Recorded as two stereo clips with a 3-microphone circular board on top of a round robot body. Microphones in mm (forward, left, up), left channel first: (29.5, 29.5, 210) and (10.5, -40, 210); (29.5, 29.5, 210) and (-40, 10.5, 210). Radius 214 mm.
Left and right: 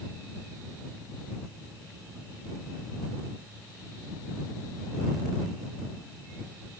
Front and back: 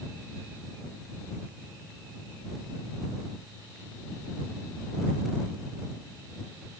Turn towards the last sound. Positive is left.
No sound to turn to.